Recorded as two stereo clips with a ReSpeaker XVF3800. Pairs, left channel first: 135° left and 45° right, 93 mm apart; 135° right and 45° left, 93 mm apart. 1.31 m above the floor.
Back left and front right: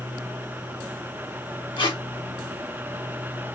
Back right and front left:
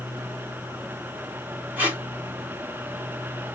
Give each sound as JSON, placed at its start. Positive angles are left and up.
{"t": 1.8, "sound": "tape being pulled", "azimuth_deg": 115, "distance_m": 1.7}